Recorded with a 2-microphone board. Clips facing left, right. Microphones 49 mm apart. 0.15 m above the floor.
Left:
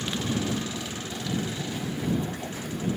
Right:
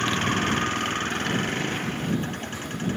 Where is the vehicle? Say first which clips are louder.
Right 5 dB; 55° right (ahead or behind).